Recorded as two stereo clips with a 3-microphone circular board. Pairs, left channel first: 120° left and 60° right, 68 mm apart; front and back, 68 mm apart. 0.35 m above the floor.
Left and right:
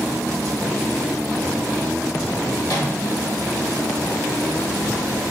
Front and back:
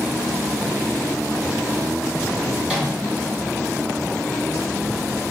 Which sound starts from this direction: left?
A microwave, at 2.6 s.